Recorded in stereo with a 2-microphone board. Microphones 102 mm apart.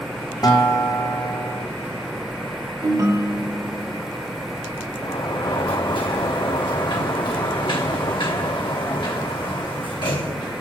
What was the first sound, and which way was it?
A guitar, 40° left (ahead or behind).